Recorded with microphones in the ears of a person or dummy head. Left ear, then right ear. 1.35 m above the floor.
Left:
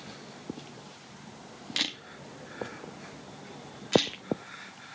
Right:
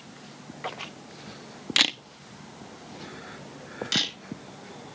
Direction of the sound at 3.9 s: 80° right.